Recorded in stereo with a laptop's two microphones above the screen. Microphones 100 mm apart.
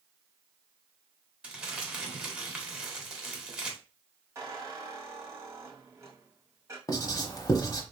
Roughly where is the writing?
Left.